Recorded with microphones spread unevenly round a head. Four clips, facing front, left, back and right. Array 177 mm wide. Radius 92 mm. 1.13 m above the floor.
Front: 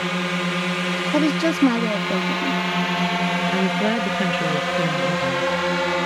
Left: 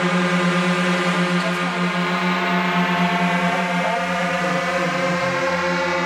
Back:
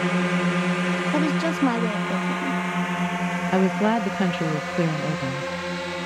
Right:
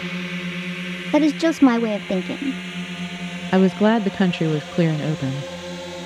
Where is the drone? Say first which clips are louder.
Left 11 dB, back 1 dB; 110° left; by 6.1 s 45° left.